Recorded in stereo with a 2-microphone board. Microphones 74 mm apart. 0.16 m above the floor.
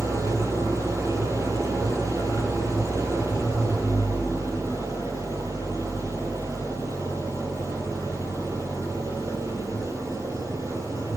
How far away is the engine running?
About 2.5 m.